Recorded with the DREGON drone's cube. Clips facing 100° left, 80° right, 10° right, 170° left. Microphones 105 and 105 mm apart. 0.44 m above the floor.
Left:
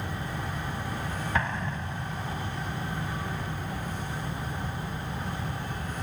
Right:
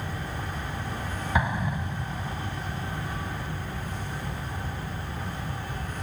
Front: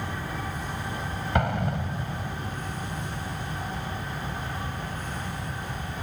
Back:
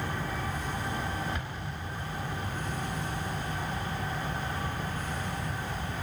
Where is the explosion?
Straight ahead.